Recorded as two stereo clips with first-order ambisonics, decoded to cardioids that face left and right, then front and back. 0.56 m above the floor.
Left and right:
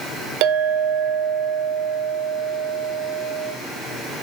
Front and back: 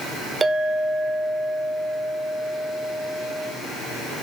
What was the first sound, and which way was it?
A clink, 105° right.